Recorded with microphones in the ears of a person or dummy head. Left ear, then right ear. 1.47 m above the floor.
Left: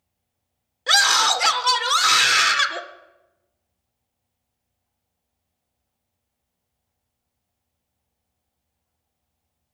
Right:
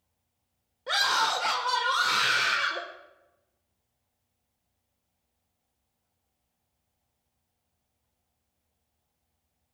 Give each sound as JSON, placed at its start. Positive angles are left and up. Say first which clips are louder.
{"t": 0.9, "sound": "a scream", "louder": "left 8 dB", "side_deg": 75, "distance_m": 1.5}